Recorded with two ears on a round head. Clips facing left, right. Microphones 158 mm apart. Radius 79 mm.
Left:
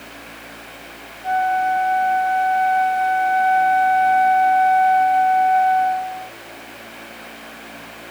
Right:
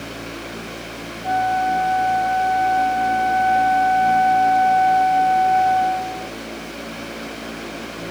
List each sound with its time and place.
1.2 s a flute: 10° left (ahead or behind)